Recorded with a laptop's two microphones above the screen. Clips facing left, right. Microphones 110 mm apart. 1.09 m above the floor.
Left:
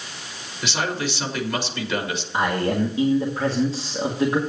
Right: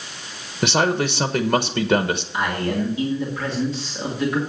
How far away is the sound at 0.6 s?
About 1.0 m.